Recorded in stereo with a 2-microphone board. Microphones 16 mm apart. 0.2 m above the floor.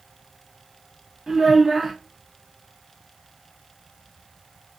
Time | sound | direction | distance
1.3 | a child speaking | 40° right (ahead or behind) | 1.4 m